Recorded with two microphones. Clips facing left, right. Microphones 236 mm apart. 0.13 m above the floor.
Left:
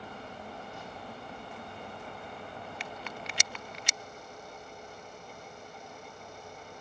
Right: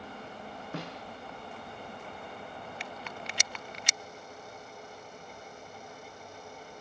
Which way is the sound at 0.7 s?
80° right.